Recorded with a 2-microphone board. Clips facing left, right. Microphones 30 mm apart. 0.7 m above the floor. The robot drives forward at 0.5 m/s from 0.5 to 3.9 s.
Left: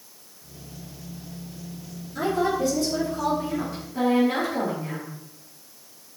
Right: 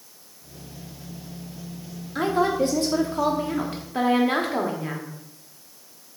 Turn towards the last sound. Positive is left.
turn(degrees=-55)  # may be behind; listen again after turning